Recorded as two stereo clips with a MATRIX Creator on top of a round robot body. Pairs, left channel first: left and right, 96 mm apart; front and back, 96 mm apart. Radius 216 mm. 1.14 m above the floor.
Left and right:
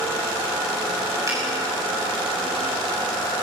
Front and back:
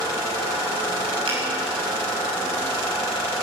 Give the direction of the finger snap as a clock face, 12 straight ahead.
5 o'clock.